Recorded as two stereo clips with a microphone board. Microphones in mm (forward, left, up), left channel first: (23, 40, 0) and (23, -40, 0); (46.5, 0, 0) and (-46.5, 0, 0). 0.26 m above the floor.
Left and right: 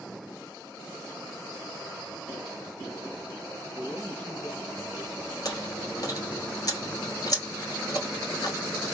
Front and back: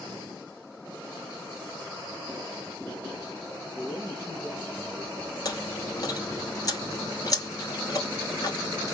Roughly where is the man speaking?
Behind left.